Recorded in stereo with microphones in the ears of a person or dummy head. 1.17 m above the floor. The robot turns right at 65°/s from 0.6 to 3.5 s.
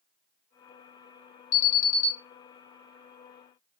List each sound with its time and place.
1.5 s an alarm: 55° left, 1.3 m; by 2.1 s 95° left, 1.3 m